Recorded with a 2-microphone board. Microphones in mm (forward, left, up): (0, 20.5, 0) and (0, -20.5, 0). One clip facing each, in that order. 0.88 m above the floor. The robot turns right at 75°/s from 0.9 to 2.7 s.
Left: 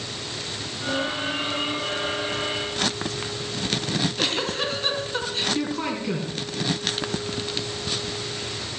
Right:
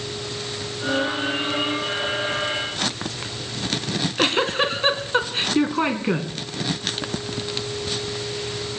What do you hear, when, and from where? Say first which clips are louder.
3.9 s a giggle: right 5 dB; 35° right (ahead or behind), 2.5 m